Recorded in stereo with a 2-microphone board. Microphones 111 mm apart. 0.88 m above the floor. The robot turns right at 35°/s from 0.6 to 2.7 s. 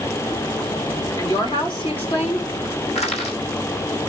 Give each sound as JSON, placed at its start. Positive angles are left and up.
{"t": 1.2, "sound": "a woman speaking", "azimuth_deg": 35, "distance_m": 3.0}
{"t": 3.0, "sound": "crushing", "side_deg": 80, "distance_m": 3.5}